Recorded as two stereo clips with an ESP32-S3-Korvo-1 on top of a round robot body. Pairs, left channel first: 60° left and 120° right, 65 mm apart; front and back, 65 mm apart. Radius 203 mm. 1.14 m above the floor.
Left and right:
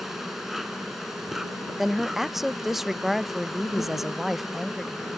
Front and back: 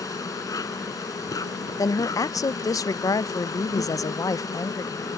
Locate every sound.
0.0 s an insect: 35° right
1.8 s a woman speaking: 35° right